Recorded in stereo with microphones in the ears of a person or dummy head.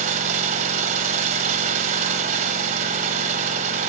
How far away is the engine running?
About 0.9 m.